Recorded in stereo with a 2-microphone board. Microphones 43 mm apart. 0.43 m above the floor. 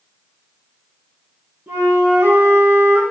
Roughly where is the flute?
Right.